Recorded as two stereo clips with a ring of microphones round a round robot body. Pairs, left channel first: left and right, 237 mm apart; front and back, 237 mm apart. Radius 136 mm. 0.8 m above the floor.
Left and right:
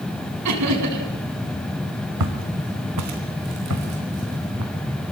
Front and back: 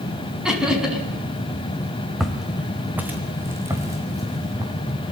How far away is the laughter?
About 6 m.